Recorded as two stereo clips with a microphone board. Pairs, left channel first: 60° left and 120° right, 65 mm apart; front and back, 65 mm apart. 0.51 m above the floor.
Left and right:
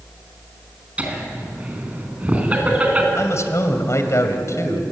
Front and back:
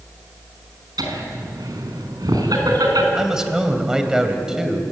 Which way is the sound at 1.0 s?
175° left.